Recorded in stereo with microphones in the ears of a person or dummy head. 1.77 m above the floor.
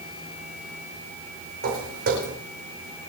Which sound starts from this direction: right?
Footsteps, at 1.6 s.